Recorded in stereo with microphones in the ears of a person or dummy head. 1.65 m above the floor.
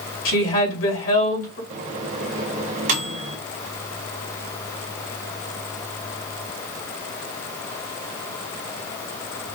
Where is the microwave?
40° right (ahead or behind), 0.9 m.